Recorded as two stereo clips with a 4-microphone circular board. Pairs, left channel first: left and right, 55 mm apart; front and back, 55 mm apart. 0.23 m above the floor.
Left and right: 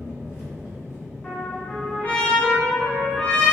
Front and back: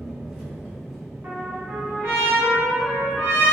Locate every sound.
0.0 s an engine running: 95° left, 1.0 m
1.2 s a trumpet: 145° left, 1.3 m